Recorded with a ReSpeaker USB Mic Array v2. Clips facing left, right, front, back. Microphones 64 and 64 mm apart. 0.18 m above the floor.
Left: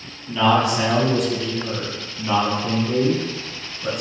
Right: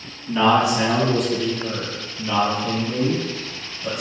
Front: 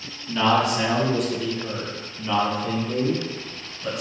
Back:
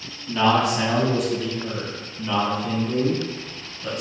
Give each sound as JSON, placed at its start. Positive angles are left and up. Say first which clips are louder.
{"t": 0.3, "sound": "a man speaking", "louder": "right 1 dB, back 1 dB", "azimuth_deg": -110, "distance_m": 1.1}